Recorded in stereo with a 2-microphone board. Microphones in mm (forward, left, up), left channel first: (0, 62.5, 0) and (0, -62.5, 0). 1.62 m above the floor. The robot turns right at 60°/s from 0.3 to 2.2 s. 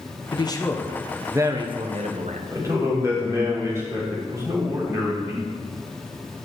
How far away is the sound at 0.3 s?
About 1.2 m.